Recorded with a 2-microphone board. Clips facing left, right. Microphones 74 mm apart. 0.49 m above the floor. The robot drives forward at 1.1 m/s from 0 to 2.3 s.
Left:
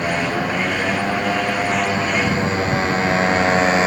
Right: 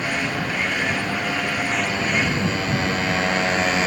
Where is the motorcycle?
25° left (ahead or behind); by 3.9 s 30° left (ahead or behind).